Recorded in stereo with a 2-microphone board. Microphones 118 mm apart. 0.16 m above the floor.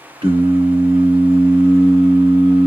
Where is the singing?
50° right (ahead or behind), 1.3 m.